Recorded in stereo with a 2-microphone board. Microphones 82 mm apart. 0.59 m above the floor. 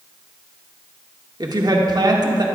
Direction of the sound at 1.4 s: 50° right (ahead or behind).